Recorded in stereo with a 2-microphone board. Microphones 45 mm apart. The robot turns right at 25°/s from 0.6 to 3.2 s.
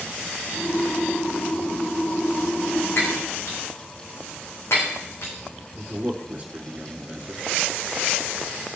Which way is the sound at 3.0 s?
65° left (ahead or behind).